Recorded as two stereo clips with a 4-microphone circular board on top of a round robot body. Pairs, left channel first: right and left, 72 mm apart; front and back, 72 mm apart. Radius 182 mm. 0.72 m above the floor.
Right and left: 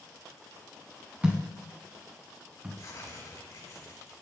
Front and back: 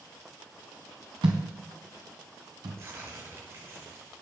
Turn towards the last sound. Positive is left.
turn(degrees=-130)